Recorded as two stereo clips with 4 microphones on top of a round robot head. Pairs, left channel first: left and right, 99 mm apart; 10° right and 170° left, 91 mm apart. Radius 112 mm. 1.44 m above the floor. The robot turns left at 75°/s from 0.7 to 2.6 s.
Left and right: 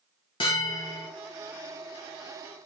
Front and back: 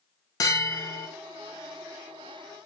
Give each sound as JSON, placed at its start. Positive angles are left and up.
{"t": 0.4, "sound": "a bell", "azimuth_deg": 40, "distance_m": 0.9}